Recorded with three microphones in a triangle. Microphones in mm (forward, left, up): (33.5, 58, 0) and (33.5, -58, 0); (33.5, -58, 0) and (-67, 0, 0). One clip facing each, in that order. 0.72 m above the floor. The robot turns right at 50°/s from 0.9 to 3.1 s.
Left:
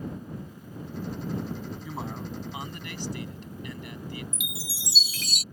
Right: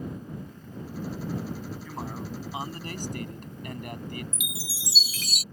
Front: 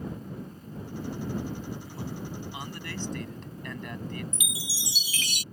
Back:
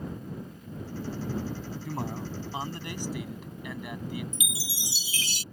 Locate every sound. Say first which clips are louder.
1.9 s a man speaking: even, back 3 dB; 170° left; by 4.2 s 130° right
4.3 s a chime: even, even; straight behind